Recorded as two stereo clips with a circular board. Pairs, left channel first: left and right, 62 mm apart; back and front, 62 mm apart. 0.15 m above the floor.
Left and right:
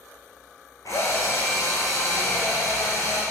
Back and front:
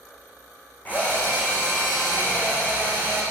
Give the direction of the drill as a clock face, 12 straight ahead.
8 o'clock.